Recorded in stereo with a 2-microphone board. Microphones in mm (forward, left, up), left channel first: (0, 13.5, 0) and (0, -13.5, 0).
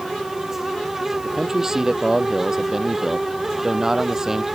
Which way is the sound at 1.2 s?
20° right (ahead or behind).